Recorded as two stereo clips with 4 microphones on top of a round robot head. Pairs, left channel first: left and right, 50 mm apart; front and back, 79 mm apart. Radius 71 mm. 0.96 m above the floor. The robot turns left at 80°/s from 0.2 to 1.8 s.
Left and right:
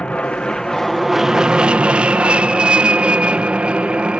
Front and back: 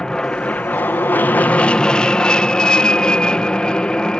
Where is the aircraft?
65° left; by 4.2 s 65° right.